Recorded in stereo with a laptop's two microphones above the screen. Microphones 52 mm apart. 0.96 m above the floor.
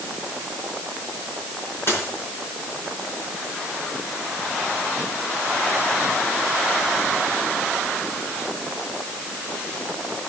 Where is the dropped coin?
50° left (ahead or behind), 4.5 m.